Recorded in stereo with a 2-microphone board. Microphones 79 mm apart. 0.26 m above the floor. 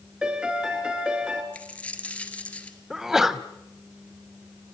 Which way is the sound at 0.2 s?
10° right (ahead or behind).